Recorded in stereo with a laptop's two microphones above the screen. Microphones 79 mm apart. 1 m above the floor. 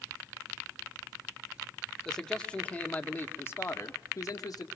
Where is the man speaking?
5° left (ahead or behind), 2.5 m; by 4.7 s 55° left (ahead or behind), 2.5 m.